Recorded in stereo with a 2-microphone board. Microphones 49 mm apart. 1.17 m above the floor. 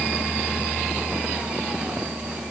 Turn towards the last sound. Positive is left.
No sound to turn to.